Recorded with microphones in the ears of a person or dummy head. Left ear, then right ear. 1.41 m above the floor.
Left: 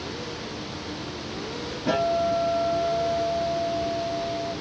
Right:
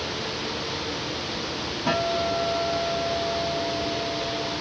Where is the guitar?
50° right (ahead or behind), 4.5 m.